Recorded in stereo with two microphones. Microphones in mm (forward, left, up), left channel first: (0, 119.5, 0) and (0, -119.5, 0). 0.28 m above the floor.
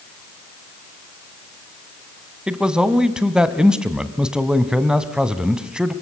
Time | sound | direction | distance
2.5 | a man speaking | 5° right (ahead or behind) | 1.8 m